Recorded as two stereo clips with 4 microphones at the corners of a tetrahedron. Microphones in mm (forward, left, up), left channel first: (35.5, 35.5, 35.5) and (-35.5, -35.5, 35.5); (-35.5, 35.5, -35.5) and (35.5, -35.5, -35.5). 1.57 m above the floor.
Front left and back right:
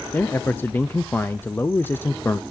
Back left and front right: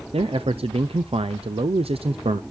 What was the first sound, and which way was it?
A man speaking, 25° right.